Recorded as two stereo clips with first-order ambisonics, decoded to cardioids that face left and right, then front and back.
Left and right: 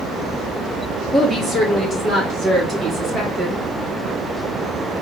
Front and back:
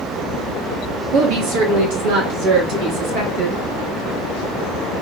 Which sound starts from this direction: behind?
A woman speaking, at 1.1 s.